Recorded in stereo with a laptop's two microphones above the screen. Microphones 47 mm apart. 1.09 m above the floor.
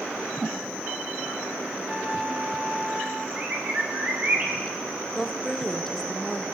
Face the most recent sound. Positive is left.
turn(degrees=5)  # may be behind; listen again after turning